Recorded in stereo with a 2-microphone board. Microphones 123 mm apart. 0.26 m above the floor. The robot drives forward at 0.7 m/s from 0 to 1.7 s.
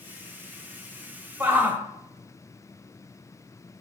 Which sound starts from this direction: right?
A shout, at 1.4 s.